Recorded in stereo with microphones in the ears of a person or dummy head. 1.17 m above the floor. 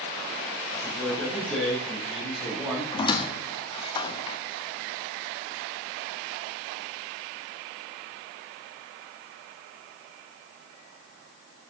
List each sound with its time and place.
0.7 s a man speaking: 20° left (ahead or behind), 6 m; by 2.8 s centre (ahead or behind), 5.5 m
2.9 s a squeak: 35° left (ahead or behind), 0.9 m